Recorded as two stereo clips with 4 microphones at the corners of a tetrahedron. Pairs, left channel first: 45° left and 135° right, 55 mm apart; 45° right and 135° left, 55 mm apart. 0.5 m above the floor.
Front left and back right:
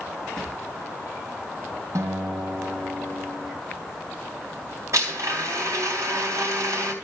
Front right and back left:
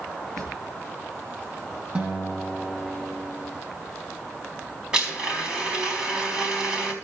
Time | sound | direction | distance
0.4 | a drawer | 120° left | 5.5 m
1.9 | a guitar | 155° right | 4 m
4.9 | a blender | 150° right | 4 m